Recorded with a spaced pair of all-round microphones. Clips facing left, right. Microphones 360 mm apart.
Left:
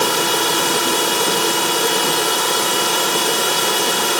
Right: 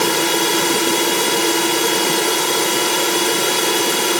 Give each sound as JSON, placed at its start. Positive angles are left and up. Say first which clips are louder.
{"t": 0.0, "sound": "a drone", "louder": "right 2 dB", "side_deg": -35}